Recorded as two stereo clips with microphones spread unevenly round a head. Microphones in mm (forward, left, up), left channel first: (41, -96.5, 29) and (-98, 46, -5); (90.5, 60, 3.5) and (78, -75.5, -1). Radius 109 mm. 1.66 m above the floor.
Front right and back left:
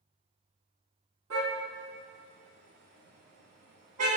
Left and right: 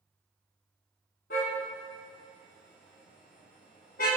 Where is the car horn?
100° left, 7 m; by 4.1 s 115° left, 6.5 m.